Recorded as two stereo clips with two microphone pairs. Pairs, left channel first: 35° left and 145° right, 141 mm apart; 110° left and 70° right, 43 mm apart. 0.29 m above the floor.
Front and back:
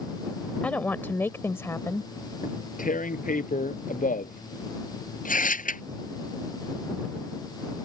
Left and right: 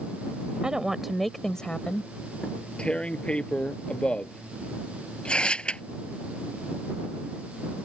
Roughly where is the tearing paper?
Ahead left.